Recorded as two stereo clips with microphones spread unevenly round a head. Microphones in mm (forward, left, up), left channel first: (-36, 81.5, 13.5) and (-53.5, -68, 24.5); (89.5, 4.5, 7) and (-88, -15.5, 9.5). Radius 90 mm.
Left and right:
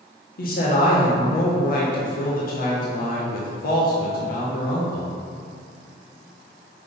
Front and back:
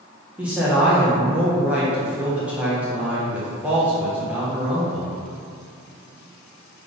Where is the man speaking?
105° left, 1.3 m.